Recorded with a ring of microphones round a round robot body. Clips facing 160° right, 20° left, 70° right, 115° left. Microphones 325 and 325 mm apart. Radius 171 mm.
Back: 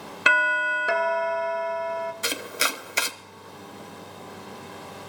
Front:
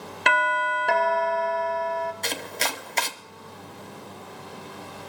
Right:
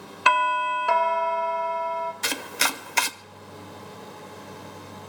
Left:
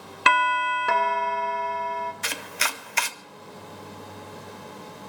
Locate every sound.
0.3 s a doorbell: 130° left, 1.1 m
2.2 s chopping: 80° right, 0.7 m